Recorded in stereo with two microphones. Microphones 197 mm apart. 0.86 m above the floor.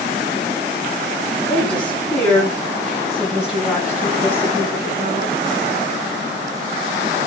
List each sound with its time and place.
1.5 s a woman speaking: 10° left (ahead or behind), 7 m; by 5.4 s 15° right (ahead or behind), 7.5 m